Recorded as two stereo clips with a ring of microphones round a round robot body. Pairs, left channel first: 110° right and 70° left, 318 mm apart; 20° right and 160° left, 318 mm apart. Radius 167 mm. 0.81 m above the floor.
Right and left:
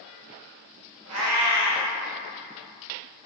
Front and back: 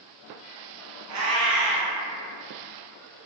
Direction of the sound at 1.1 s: 115° left.